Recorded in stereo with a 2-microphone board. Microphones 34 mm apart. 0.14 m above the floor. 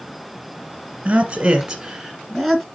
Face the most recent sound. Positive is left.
turn(degrees=5)  # may be behind; listen again after turning